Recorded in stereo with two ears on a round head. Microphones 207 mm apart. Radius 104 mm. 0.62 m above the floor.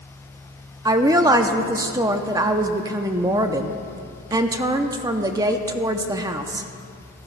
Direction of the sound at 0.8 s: 15° right (ahead or behind).